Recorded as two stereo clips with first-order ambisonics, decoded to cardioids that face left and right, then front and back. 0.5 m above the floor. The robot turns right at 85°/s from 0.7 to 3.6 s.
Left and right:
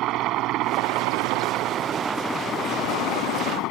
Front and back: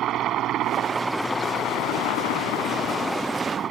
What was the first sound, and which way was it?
A helicopter, 130° right.